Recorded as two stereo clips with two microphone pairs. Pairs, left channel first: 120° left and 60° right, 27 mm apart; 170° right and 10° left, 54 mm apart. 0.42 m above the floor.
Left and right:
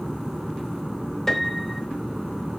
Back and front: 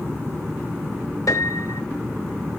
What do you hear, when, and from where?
1.3 s a piano: 165° right, 0.8 m